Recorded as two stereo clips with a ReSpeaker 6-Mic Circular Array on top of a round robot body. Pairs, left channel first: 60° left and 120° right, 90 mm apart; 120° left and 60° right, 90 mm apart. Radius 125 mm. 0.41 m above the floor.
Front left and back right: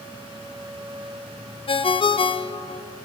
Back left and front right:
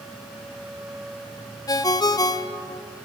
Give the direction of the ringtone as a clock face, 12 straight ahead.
10 o'clock.